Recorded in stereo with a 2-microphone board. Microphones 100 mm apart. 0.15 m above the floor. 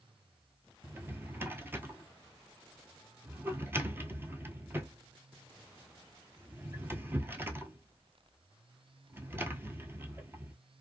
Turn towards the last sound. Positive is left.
turn(degrees=-20)  # may be behind; listen again after turning